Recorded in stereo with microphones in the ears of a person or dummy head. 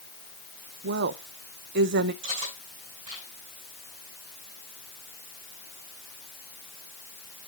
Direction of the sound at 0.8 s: 55° right (ahead or behind).